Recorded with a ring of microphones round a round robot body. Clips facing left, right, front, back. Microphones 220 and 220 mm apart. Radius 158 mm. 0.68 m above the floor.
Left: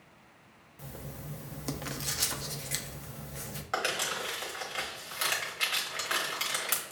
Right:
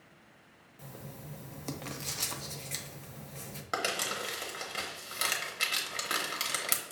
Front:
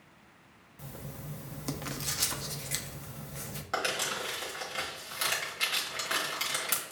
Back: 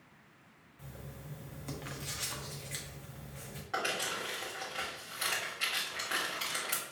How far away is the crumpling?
About 1.1 m.